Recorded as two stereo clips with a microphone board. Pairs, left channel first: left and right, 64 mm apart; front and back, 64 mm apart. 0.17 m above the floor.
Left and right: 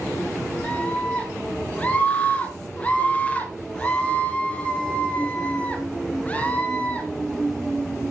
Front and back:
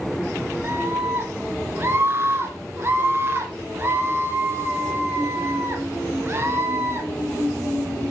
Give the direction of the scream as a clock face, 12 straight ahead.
7 o'clock.